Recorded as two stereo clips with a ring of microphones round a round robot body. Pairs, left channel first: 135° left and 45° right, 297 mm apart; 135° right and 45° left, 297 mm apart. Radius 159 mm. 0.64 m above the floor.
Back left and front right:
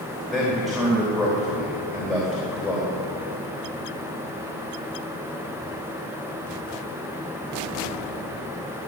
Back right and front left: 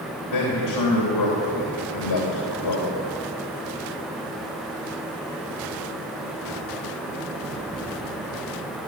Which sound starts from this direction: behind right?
A man speaking, at 0.3 s.